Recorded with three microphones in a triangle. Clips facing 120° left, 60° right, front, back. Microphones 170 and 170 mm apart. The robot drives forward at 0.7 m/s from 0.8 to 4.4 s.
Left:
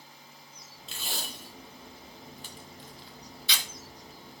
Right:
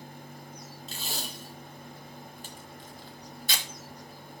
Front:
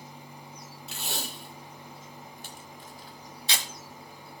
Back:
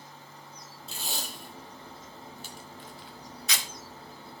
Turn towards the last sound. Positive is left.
turn(degrees=-95)